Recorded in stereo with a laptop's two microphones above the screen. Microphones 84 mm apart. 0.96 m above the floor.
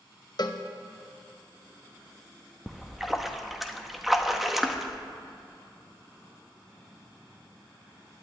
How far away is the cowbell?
About 0.8 m.